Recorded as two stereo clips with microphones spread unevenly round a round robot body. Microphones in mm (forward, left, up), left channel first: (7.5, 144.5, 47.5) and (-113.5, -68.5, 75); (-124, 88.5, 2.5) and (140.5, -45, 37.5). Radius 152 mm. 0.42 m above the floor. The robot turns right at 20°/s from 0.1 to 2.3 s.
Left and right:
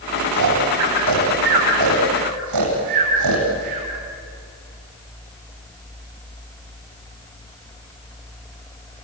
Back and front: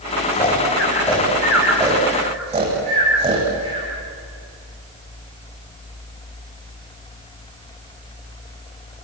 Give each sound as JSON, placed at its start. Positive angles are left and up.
{"t": 0.3, "sound": "snoring", "azimuth_deg": -135, "distance_m": 8.5}